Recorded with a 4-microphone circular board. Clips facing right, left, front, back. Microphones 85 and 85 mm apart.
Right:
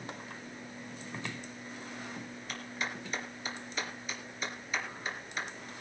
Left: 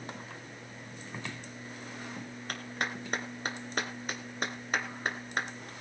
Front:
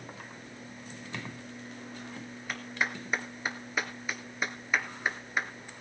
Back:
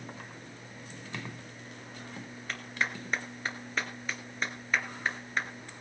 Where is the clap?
75° left, 1.9 m.